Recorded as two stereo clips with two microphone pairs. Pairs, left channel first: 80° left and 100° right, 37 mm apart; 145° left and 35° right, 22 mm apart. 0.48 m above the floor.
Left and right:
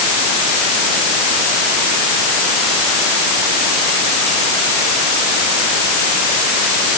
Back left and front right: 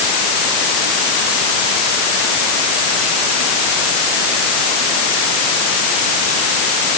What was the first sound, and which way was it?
Only background noise.